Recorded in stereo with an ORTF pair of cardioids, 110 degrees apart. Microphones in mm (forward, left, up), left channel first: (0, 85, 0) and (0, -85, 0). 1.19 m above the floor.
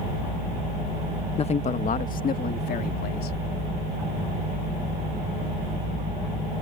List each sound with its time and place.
1.4 s a man speaking: 35° left; by 3.4 s 65° left